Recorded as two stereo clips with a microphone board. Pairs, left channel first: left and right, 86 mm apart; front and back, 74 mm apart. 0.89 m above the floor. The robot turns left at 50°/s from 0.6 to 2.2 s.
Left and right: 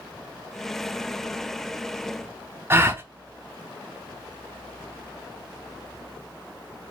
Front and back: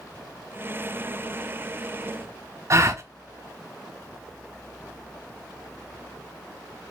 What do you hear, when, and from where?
2.7 s a gasp: 145° right, 0.6 m